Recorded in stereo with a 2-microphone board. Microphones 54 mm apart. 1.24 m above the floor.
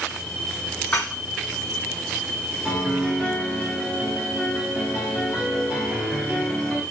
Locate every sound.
0.9 s dishes clattering: 35° left (ahead or behind), 2 m
2.6 s a piano: centre (ahead or behind), 2 m